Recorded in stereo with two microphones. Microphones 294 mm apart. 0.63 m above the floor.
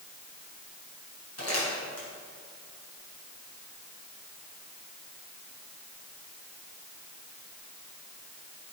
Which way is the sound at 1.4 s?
55° left (ahead or behind).